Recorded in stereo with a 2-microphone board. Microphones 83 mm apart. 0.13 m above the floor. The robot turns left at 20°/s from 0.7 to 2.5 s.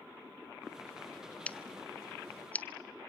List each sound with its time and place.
1.5 s scissors: 15° left (ahead or behind), 0.7 m; by 2.7 s 20° left (ahead or behind), 0.7 m